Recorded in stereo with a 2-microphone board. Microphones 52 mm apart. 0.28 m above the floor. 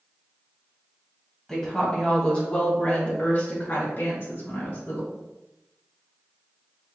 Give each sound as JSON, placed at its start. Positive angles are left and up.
{"t": 1.5, "sound": "a woman speaking", "side_deg": 10, "distance_m": 1.4}